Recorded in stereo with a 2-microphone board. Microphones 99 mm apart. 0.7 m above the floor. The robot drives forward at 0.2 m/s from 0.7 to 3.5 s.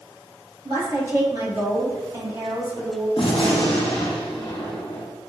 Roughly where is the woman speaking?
Right.